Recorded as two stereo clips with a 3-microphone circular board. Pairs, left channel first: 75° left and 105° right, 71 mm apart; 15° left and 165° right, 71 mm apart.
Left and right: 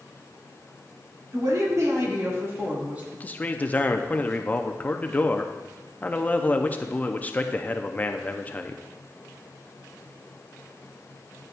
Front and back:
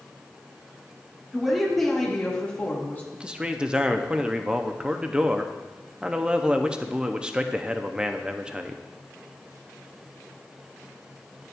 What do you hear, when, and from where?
1.3 s a woman speaking: 80° right, 1.8 m; by 3.0 s 40° right, 1.6 m
3.1 s a man speaking: 125° left, 0.5 m